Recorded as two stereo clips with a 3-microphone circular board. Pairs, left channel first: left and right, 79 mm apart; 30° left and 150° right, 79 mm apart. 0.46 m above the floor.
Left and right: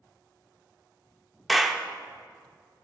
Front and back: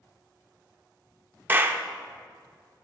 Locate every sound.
1.5 s a clap: 175° right, 0.5 m